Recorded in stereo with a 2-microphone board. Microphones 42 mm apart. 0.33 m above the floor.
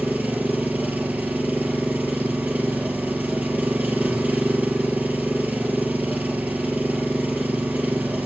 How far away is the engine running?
About 4.5 m.